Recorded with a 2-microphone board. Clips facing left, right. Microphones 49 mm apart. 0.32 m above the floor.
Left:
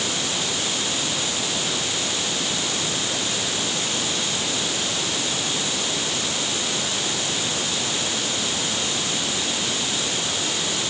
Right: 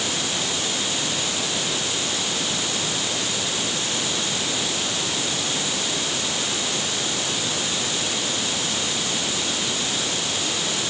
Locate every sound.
Only background noise.